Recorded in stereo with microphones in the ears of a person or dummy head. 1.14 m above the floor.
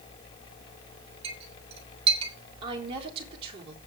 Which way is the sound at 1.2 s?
35° right (ahead or behind).